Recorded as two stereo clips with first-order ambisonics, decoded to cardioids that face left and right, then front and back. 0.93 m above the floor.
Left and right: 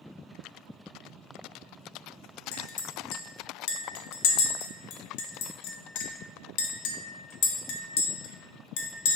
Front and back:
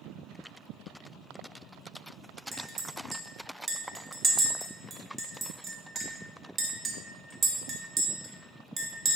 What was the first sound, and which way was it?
A clink, 105° left.